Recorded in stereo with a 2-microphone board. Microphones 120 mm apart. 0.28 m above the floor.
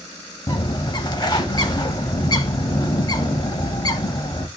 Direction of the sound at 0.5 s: 35° left (ahead or behind).